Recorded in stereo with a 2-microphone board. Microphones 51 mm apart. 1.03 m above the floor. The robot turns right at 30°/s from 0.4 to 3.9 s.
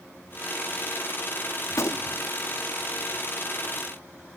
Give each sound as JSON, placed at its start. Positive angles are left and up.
{"t": 1.7, "sound": "a gunshot", "side_deg": 80, "distance_m": 1.1}